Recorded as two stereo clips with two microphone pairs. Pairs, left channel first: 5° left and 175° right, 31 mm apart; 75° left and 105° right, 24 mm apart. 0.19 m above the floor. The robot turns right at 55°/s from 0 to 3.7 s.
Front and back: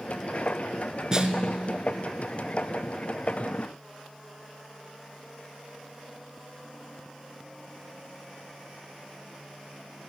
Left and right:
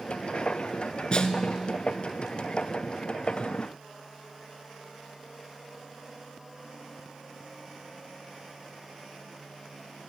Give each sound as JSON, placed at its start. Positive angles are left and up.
{"t": 1.1, "sound": "a snare drum", "azimuth_deg": 120, "distance_m": 0.7}